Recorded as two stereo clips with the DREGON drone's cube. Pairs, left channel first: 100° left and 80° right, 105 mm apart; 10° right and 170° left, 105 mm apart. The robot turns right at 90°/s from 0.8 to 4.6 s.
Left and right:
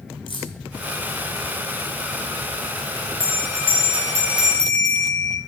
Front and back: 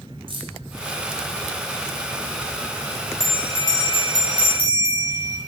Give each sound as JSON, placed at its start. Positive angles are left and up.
{"t": 0.3, "sound": "keys jangling", "azimuth_deg": 135, "distance_m": 2.0}
{"t": 3.2, "sound": "a bell", "azimuth_deg": -110, "distance_m": 1.8}